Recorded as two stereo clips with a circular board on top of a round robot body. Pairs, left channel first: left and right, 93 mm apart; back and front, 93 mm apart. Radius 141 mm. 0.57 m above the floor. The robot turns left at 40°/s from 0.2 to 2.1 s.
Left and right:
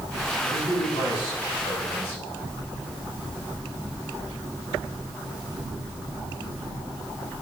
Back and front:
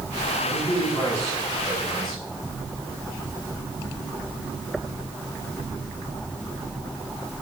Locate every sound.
0.4 s a man speaking: 155° left, 4 m; by 2.2 s 90° left, 4 m